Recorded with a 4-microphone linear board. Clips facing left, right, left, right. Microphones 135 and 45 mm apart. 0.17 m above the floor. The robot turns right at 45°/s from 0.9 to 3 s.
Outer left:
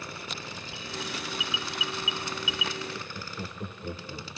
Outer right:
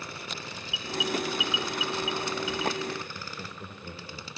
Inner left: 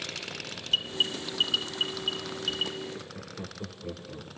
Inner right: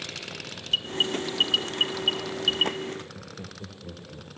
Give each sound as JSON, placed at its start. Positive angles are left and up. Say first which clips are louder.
{"t": 0.7, "sound": "an alarm", "louder": "outer right 8 dB, inner right 2 dB", "side_deg": -5, "distance_m": 0.8}
{"t": 2.9, "sound": "laughter", "louder": "even, inner right 2 dB", "side_deg": 15, "distance_m": 4.0}